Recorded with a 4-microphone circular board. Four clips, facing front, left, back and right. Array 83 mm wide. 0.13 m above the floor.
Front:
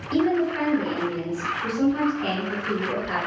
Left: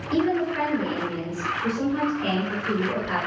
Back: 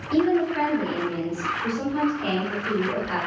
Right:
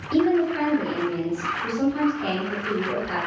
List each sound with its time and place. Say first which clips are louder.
0.1 s a woman speaking: right 3 dB, back 1 dB; 90° left, 1.6 m